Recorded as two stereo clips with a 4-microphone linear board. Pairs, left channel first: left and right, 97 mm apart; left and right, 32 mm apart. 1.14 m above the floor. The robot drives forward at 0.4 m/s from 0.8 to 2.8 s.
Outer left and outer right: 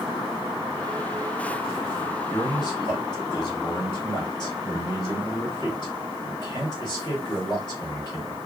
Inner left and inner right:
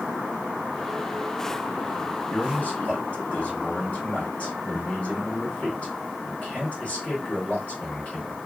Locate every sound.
2.3 s a man speaking: 45° left (ahead or behind), 1.3 m; by 8.4 s 40° left (ahead or behind), 1.4 m